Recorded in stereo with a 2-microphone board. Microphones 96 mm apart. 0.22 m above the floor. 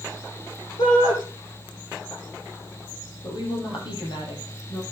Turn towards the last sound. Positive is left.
turn(degrees=60)  # may be behind; listen again after turning